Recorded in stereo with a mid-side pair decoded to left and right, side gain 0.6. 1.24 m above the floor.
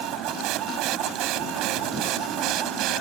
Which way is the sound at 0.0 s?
70° right.